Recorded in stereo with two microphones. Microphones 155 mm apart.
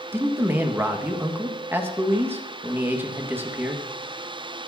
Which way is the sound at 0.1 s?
15° right (ahead or behind).